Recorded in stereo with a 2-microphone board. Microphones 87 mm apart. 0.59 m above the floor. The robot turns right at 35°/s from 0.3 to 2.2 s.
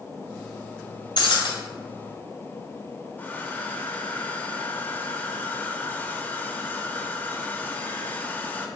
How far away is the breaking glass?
About 1.9 m.